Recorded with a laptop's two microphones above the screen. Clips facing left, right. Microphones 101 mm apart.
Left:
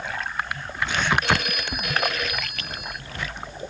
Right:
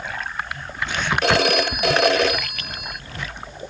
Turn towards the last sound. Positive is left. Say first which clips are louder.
# right 7 dB
turn(degrees=-80)